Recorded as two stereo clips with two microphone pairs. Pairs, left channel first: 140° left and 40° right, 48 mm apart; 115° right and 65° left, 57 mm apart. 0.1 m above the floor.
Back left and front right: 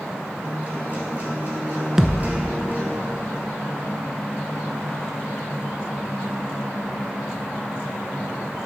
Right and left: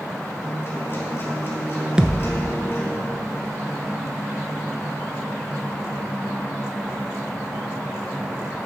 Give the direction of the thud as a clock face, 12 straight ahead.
12 o'clock.